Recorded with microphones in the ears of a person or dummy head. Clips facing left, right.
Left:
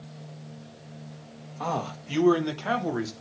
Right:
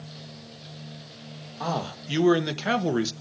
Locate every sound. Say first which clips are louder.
1.6 s a man speaking: right 1 dB; 5° right (ahead or behind), 1.3 m; by 3.1 s 40° right (ahead or behind), 1.0 m